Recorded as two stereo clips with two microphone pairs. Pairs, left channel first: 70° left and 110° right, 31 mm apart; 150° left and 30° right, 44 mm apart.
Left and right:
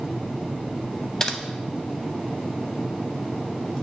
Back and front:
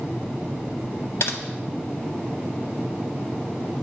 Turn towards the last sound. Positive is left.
turn(degrees=140)